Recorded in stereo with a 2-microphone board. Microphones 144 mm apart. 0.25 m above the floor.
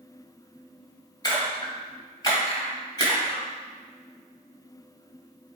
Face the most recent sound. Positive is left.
turn(degrees=30)  # may be behind; listen again after turning